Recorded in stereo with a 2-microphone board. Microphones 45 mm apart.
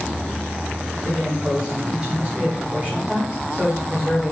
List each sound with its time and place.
1.0 s a man speaking: 25° right (ahead or behind), 1.8 m; by 4.3 s 15° right (ahead or behind), 1.6 m